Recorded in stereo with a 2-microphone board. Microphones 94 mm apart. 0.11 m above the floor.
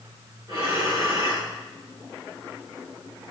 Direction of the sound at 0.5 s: 40° right (ahead or behind).